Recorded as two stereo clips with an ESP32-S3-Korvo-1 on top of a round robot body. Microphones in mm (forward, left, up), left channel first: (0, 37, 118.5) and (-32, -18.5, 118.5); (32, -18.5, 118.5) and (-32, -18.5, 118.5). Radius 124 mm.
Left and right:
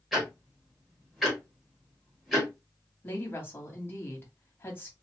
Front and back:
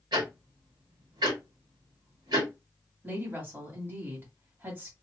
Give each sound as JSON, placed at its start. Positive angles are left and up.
{"t": 0.1, "sound": "ticking", "azimuth_deg": 150, "distance_m": 0.9}
{"t": 3.0, "sound": "a woman speaking", "azimuth_deg": 120, "distance_m": 1.5}